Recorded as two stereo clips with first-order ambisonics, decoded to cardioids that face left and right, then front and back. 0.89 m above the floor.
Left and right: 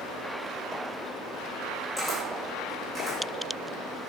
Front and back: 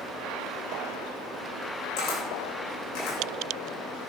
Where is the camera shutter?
10° left, 5.5 m.